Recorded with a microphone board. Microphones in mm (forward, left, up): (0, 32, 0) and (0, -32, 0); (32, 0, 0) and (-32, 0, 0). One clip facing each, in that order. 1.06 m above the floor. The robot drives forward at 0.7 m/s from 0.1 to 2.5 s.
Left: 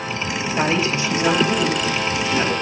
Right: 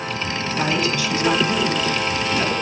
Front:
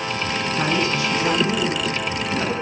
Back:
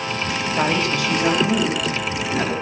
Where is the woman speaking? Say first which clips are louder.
Left 2 dB, back 2 dB; 150° left, 2 m; by 2.5 s 165° left, 3.5 m.